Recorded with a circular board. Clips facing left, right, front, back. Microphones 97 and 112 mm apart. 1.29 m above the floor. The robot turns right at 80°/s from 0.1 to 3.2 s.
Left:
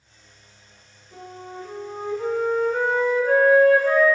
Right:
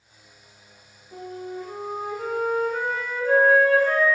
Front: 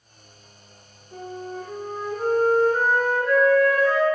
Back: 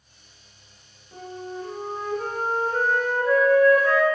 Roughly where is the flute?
Ahead right.